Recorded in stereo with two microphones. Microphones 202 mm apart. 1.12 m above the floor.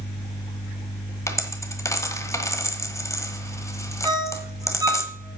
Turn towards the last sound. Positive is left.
turn(degrees=-20)  # may be behind; listen again after turning